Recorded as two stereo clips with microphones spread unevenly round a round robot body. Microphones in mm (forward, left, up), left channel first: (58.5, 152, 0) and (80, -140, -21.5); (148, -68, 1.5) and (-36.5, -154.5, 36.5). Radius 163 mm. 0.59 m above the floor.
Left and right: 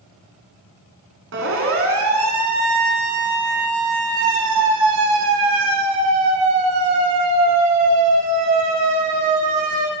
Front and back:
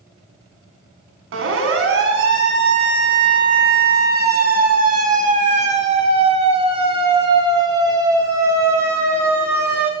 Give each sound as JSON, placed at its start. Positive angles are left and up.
{"t": 1.3, "sound": "a siren", "azimuth_deg": -145, "distance_m": 4.5}